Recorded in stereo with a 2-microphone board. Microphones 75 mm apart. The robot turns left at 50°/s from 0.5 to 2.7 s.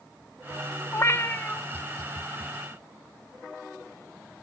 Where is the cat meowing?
70° left, 0.5 m; by 1.6 s 35° left, 0.5 m.